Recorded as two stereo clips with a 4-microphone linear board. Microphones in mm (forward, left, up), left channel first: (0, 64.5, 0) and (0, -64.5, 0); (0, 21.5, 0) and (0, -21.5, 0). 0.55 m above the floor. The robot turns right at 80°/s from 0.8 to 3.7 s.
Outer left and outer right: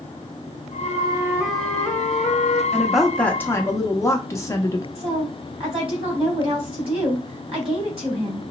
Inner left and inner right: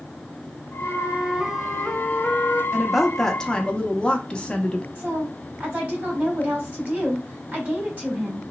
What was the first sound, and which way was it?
A flute, 55° right.